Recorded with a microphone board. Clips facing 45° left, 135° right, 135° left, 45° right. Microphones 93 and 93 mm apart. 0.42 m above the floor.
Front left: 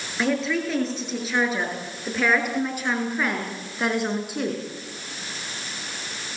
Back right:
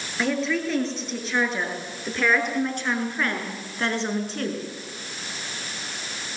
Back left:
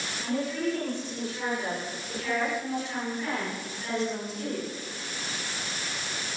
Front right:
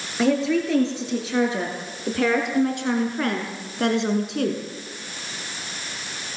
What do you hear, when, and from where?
0.2 s a woman speaking: 45° right, 8 m; by 4.6 s 35° right, 5.5 m